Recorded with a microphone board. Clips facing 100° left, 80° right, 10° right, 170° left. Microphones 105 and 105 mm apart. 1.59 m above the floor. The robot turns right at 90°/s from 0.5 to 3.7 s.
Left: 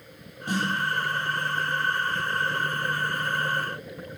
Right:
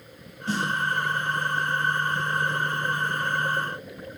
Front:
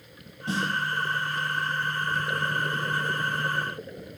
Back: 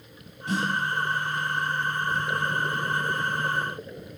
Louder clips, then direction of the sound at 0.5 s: Even, back 1 dB; 35° left.